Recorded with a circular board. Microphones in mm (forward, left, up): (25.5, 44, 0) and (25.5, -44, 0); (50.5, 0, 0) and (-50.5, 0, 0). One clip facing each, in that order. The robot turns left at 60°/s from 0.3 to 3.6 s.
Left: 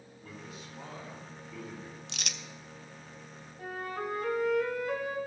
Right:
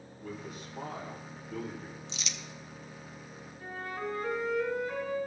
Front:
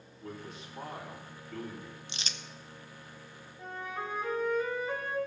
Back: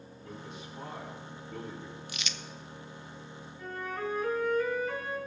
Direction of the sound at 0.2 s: 45° right.